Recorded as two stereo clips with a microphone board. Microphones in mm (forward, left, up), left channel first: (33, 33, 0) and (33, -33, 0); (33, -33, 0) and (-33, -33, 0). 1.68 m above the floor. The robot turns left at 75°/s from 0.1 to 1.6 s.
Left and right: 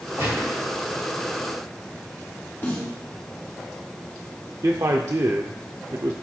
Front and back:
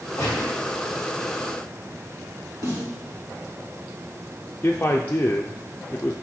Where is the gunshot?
30° right, 3.5 m; by 0.6 s 60° right, 3.5 m.